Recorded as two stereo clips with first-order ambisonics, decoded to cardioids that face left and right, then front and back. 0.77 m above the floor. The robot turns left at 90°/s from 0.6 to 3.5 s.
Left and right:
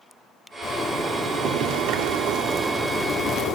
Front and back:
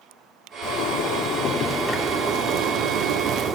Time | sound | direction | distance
0.6 | a zipper | 25° left | 1.9 m